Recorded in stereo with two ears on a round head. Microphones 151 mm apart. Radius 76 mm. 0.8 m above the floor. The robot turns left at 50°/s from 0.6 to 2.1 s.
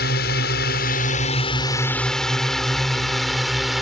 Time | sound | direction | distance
0.0 | a drone | 65° left (ahead or behind) | ?